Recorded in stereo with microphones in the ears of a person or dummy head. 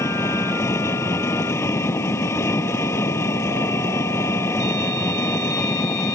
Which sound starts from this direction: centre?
An engine running, at 0.0 s.